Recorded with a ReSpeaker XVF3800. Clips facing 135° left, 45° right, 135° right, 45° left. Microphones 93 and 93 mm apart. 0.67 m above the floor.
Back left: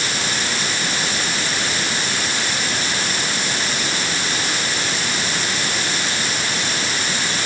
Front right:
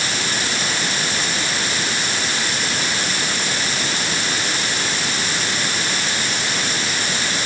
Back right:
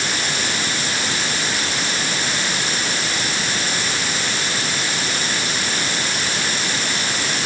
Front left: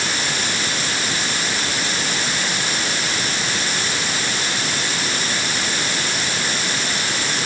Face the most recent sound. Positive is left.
No sound to turn to.